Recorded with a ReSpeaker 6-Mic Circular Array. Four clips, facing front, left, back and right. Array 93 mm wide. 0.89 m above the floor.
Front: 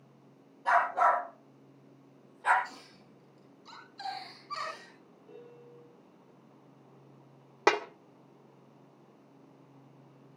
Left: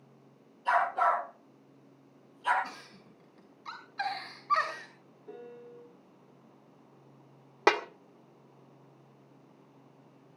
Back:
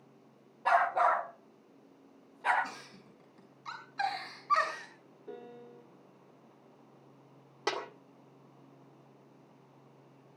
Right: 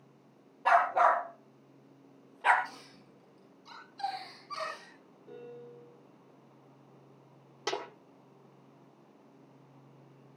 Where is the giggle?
135° left, 8.5 m.